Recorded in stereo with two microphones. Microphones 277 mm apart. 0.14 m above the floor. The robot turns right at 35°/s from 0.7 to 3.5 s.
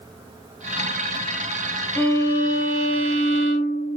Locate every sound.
1.9 s a violin: 20° left, 1.9 m; by 4.0 s 75° left, 1.9 m